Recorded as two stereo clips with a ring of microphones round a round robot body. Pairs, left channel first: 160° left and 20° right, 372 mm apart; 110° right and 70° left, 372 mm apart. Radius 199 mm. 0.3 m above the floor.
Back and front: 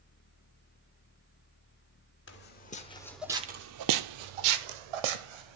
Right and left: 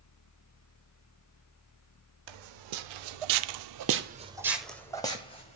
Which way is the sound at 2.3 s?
95° left.